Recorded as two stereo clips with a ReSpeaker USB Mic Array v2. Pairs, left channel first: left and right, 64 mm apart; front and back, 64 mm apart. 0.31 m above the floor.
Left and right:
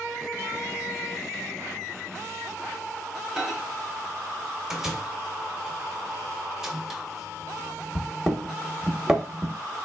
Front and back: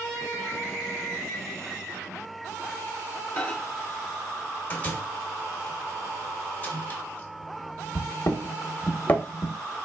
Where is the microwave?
15° right, 0.7 m.